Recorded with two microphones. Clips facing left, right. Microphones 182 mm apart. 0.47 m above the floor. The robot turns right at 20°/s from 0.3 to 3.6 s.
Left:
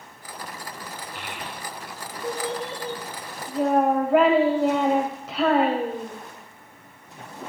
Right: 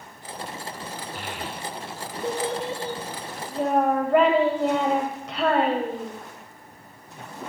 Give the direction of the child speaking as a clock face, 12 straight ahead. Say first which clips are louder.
Right 2 dB; 2 o'clock.